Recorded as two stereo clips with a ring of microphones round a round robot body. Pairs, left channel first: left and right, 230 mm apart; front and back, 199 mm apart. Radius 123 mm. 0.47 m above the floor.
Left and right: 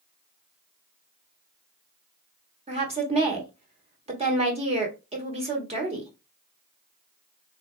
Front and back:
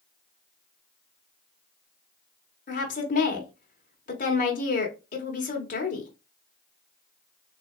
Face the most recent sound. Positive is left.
turn(degrees=-35)